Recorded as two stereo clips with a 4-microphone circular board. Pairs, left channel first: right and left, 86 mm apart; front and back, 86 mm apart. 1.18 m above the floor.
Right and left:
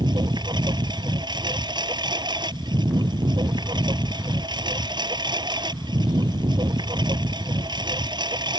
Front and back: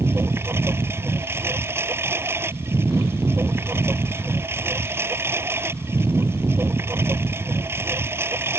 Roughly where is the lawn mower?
Behind left.